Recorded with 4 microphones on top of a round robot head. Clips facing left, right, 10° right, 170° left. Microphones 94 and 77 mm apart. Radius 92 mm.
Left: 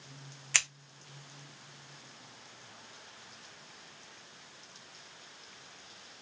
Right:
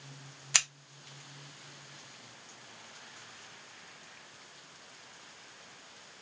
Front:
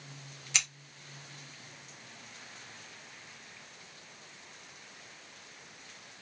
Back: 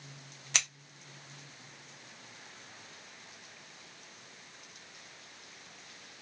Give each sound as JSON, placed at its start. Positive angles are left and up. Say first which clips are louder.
{"t": 0.5, "sound": "scissors", "louder": "even, even", "azimuth_deg": -160, "distance_m": 1.8}